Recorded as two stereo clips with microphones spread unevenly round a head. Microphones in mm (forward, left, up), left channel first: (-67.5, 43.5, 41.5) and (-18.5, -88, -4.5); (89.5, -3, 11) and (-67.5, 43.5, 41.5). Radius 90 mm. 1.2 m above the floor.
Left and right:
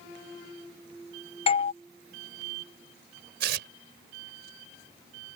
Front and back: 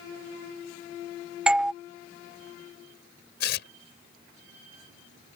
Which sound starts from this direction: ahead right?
Tearing paper, at 3.4 s.